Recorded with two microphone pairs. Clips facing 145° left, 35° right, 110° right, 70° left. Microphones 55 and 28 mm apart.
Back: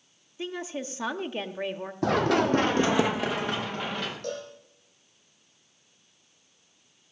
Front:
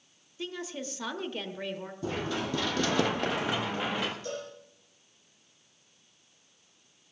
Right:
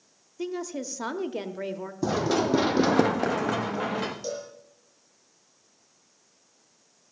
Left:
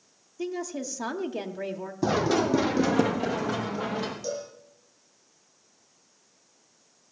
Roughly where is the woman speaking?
Behind.